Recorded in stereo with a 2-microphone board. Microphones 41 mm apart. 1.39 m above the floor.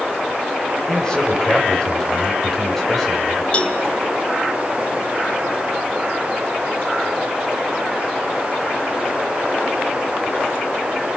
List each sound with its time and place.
0.9 s a man speaking: 20° left (ahead or behind), 7 m; by 3.4 s 5° left (ahead or behind), 7 m
3.5 s a cowbell: 35° left (ahead or behind), 2.0 m